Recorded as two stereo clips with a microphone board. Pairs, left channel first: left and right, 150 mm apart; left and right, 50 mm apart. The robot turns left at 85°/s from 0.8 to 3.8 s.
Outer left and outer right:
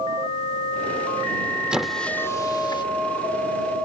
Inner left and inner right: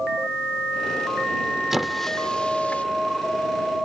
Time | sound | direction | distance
1.7 | a squeak | 5° right (ahead or behind) | ?